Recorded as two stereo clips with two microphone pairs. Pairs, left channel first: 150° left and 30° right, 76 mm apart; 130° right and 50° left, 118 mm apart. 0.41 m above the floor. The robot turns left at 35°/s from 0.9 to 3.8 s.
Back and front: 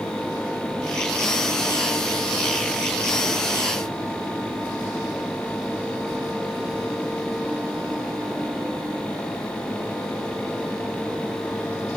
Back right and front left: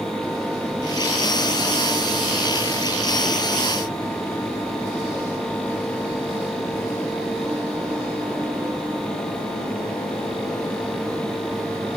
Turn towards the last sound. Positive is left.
No sound to turn to.